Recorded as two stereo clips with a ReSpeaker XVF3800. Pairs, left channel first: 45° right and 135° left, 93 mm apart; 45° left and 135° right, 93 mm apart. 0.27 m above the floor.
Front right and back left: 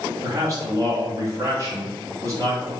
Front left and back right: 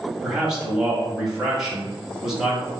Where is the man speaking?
145° left, 1.1 m.